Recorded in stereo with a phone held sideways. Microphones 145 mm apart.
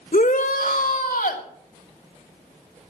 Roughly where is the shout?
Left.